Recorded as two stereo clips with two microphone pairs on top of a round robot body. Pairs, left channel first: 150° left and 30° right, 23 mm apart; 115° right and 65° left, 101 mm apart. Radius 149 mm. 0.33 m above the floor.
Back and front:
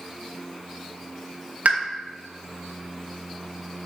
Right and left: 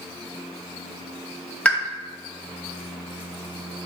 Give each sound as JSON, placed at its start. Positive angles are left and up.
{"t": 1.6, "sound": "a pop", "azimuth_deg": -35, "distance_m": 1.7}